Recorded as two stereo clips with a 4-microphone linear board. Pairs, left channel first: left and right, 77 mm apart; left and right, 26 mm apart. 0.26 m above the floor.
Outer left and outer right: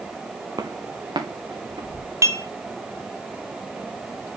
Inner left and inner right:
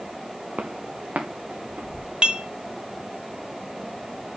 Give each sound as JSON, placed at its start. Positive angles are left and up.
{"t": 0.6, "sound": "footsteps", "side_deg": -65, "distance_m": 1.7}
{"t": 2.2, "sound": "dishes clattering", "side_deg": -40, "distance_m": 1.0}